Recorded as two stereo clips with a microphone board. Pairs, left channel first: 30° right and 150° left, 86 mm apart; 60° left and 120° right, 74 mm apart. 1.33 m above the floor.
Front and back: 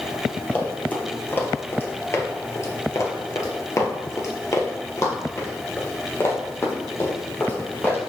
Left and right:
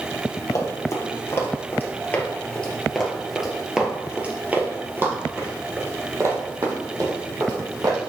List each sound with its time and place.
0.5 s running footsteps: 35° left, 2.0 m; by 8.0 s 90° right, 3 m